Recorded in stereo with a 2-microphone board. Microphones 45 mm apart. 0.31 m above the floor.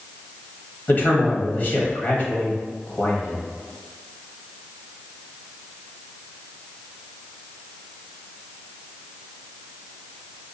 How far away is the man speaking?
About 1.2 m.